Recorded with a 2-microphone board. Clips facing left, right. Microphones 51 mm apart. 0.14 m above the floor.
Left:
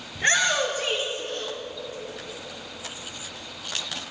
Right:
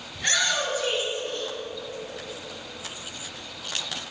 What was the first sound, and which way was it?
A shout, 30° left (ahead or behind).